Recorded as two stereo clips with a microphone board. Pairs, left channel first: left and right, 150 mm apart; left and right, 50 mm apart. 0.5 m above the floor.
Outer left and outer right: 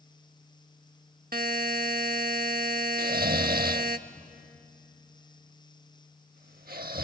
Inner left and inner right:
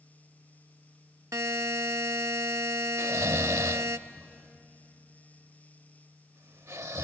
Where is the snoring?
85° right, 0.6 m.